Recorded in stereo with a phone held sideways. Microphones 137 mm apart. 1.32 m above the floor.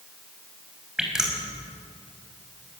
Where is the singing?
I don't hear singing.